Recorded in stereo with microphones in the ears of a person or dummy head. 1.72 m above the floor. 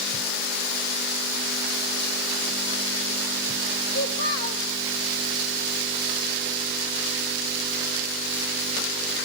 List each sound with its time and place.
3.9 s a child speaking: 55° left (ahead or behind), 1.3 m